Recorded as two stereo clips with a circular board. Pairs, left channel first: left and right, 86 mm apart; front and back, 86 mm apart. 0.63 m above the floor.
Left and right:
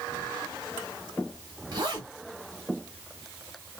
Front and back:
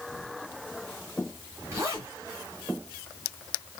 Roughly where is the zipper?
Behind right.